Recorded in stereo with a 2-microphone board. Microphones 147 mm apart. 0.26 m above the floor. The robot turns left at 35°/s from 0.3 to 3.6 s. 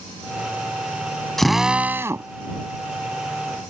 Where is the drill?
5° left; by 2.3 s 30° right.